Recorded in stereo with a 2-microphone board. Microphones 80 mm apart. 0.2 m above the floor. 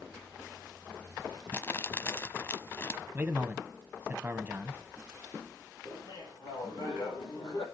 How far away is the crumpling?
About 0.8 m.